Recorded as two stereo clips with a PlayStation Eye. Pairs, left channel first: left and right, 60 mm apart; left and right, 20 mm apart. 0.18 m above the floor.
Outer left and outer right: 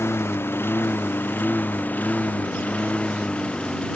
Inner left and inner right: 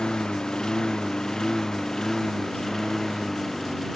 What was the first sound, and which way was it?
A lawn mower, 45° left (ahead or behind).